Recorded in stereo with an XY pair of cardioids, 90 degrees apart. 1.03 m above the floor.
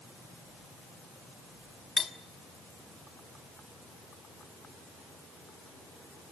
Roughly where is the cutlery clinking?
Ahead left.